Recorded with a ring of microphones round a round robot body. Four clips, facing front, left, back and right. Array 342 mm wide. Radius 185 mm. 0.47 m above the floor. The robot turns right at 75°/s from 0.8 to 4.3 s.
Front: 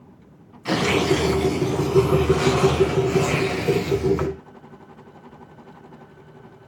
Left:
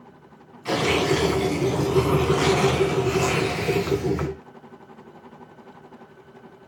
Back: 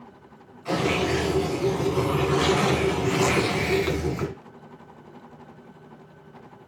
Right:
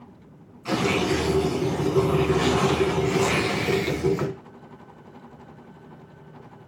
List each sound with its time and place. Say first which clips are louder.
0.7 s tearing paper: left 2 dB, front 4 dB; 5° right, 3 m; by 4.3 s 100° right, 3 m